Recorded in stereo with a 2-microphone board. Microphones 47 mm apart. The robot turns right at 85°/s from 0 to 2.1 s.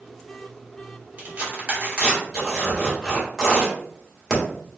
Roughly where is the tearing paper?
Right.